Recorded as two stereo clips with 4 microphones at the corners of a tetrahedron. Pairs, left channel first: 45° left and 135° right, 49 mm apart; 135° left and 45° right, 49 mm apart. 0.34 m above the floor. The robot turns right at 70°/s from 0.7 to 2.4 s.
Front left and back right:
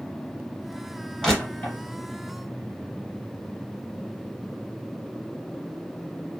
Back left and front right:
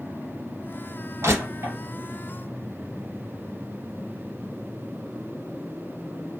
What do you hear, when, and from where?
1.2 s crushing: 40° right, 2 m; by 1.8 s 5° right, 2 m